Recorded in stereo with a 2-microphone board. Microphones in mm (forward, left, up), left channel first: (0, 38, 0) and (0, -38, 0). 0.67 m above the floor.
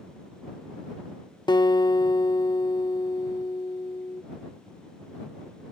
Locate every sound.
1.5 s a guitar: 65° left (ahead or behind)